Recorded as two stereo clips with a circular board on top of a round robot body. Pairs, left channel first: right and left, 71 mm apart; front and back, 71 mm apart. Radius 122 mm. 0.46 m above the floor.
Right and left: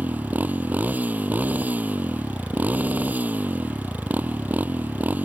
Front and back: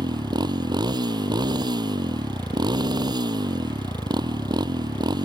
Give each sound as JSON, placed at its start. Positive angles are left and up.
{"t": 0.0, "sound": "a motorcycle", "azimuth_deg": 160}